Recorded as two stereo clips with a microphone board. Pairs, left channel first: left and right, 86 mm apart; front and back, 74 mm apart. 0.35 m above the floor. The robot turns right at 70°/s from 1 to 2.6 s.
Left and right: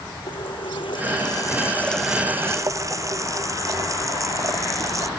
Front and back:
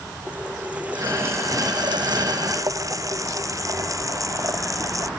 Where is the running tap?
105° left; by 5.1 s 140° right.